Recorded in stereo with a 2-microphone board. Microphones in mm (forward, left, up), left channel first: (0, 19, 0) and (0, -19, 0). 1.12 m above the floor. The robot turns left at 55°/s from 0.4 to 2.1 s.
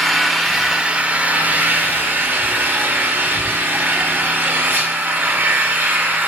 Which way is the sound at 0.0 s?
Straight ahead.